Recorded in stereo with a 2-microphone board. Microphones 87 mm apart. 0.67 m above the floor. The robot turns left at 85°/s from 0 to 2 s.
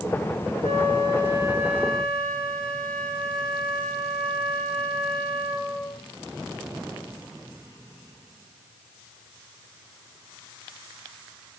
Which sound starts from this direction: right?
A flute, at 0.6 s.